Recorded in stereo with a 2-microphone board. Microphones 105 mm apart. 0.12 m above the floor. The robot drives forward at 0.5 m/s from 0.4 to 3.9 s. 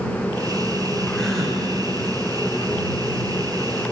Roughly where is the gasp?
Centre.